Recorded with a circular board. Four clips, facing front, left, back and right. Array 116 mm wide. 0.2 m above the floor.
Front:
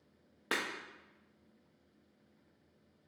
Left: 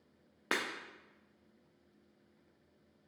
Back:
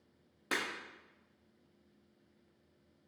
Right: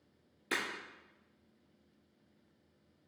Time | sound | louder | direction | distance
0.5 | breaking glass | left 2 dB, front 1 dB | 75° left | 1.3 m